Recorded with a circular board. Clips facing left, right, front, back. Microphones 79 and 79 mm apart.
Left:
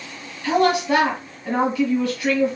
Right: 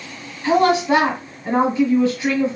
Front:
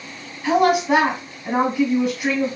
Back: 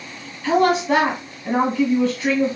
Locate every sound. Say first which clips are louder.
0.4 s a woman speaking: right 3 dB, even; 60° right, 1.5 m